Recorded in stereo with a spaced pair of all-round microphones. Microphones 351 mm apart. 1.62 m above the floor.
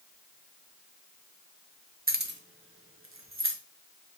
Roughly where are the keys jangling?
Right.